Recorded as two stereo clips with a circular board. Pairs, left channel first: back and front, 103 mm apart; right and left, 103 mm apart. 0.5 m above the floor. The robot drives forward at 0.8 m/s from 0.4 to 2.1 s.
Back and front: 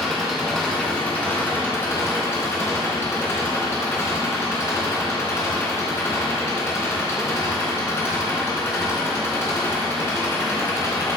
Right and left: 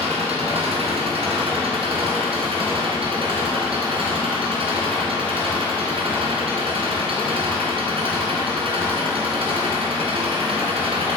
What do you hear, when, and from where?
0.0 s an engine running: 95° left, 3 m; by 11.2 s 115° left, 3.5 m